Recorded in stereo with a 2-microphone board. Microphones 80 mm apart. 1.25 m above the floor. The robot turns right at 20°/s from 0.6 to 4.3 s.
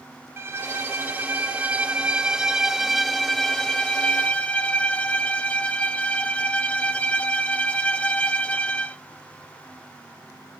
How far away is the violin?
About 0.5 m.